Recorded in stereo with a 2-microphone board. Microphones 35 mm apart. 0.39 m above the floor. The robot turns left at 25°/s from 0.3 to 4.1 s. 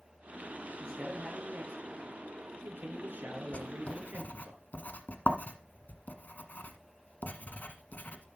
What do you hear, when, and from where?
0.8 s a man speaking: 15° right, 5.5 m; by 4.5 s 100° right, 5.5 m
3.5 s writing: 40° left (ahead or behind), 1.3 m; by 8.4 s 55° left (ahead or behind), 1.3 m